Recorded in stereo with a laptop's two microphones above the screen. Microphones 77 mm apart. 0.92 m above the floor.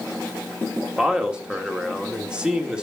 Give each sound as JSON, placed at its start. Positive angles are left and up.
{"t": 1.0, "sound": "a man speaking", "side_deg": -10, "distance_m": 2.0}